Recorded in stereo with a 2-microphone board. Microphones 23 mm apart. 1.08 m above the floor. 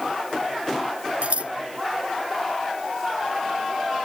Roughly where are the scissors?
Right.